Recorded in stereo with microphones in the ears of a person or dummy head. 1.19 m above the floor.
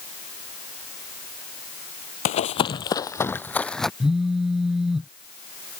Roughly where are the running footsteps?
Left.